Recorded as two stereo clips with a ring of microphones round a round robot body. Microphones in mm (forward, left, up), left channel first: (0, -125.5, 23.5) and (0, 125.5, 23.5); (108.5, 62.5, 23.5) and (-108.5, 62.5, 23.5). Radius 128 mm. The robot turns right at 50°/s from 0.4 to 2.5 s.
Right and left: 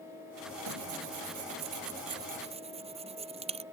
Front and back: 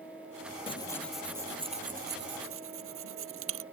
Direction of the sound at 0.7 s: 65° left.